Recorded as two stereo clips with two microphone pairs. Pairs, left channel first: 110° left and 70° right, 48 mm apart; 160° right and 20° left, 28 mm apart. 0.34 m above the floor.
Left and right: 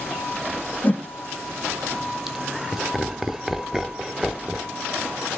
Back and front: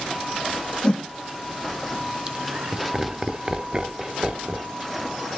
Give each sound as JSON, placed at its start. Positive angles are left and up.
{"t": 0.8, "sound": "a whoosh", "azimuth_deg": 145, "distance_m": 1.8}
{"t": 2.3, "sound": "laughter", "azimuth_deg": 10, "distance_m": 0.9}